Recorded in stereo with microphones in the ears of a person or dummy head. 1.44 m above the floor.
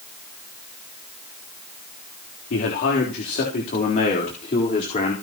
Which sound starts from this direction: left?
A man speaking, at 2.5 s.